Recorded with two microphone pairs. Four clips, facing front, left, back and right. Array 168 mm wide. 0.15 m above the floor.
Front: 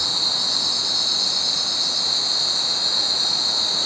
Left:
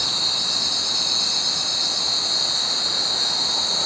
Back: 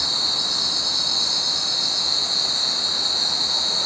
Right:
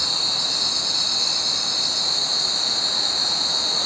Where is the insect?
135° left, 1.9 m.